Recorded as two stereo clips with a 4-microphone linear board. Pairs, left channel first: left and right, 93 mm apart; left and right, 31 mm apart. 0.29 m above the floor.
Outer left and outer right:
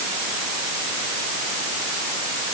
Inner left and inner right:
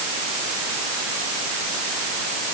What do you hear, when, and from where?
Only background noise.